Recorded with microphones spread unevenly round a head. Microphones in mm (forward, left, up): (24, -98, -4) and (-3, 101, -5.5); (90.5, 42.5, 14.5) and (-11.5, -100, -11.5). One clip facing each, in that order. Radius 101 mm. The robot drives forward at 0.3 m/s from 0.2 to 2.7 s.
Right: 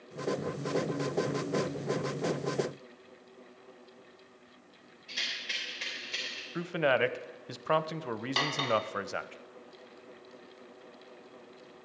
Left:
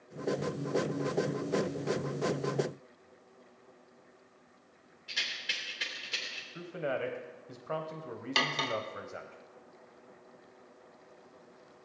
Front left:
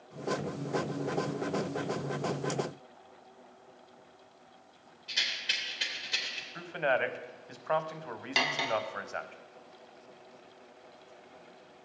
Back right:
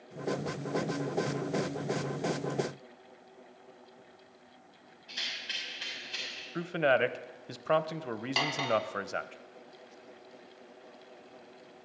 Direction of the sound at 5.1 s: 80° left.